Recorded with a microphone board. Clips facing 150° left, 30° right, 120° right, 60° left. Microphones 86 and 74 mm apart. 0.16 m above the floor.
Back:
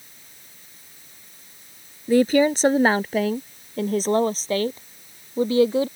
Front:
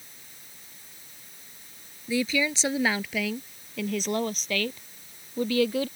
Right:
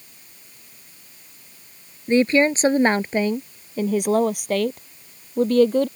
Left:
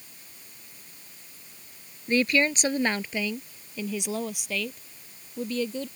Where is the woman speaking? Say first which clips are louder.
Back 10 dB, right 7 dB; 175° right; by 5.9 s 150° right.